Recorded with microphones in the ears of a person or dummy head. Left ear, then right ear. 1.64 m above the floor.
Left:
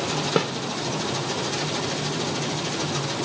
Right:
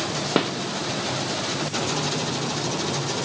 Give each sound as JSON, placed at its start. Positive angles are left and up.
{"t": 0.4, "sound": "a snare drum", "side_deg": 0, "distance_m": 0.9}